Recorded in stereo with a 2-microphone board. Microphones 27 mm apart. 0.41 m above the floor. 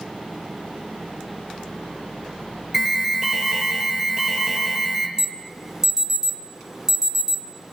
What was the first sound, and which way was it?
An alarm, 15° right (ahead or behind).